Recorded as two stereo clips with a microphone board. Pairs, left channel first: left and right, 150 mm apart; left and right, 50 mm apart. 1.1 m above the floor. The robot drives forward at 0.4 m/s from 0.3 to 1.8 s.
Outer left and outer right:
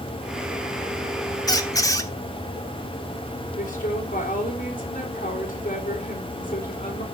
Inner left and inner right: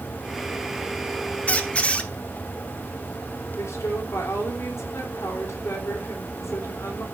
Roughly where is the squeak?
Left.